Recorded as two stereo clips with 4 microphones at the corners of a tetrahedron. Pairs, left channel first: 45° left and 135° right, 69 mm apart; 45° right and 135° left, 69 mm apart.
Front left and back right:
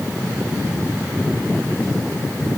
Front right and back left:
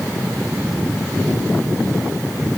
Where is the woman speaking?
I don't hear a woman speaking.